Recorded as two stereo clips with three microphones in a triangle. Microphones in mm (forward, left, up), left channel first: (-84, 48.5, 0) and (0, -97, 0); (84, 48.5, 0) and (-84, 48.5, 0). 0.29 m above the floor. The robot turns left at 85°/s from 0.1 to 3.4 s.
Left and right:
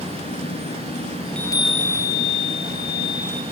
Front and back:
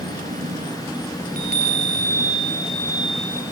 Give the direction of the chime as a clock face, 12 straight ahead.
5 o'clock.